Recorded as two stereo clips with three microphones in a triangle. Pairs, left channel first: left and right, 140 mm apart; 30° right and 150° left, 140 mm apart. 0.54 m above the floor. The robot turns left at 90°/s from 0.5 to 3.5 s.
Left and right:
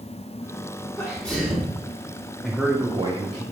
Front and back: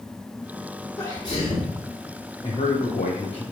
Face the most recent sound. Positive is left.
turn(degrees=-90)